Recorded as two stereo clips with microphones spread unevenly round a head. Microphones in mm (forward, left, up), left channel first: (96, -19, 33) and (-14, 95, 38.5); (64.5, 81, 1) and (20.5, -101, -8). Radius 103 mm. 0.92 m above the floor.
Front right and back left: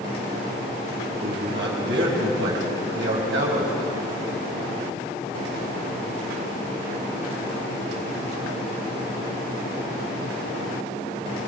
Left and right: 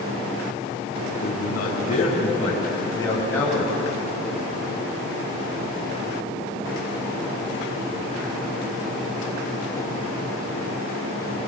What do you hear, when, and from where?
1.2 s a man speaking: 125° left, 6 m; by 3.7 s 165° left, 5.5 m